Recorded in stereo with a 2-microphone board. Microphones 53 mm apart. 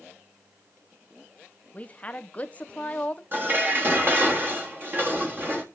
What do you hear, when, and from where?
1.7 s a woman speaking: 25° left (ahead or behind), 1.0 m
3.3 s dishes clattering: 40° right (ahead or behind), 1.9 m